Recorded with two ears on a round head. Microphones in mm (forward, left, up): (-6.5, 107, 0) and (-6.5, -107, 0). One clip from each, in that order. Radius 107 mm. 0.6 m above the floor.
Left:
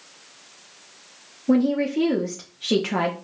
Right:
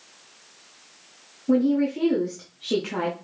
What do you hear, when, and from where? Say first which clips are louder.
1.5 s a woman speaking: left 1 dB; 20° left (ahead or behind), 0.6 m